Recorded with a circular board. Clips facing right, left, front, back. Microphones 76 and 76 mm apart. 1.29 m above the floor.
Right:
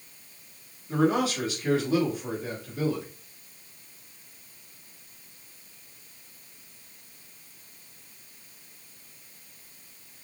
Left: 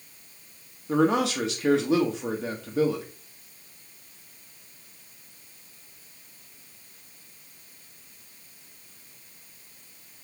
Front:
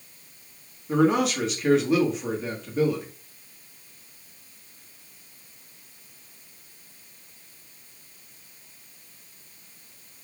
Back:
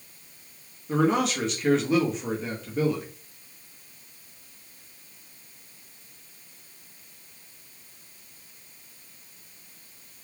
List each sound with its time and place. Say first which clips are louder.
0.9 s a man speaking: left 2 dB, front 2 dB; 90° left, 1.6 m